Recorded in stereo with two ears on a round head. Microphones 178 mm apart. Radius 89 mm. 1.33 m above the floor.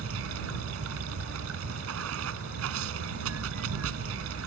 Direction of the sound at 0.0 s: 80° right.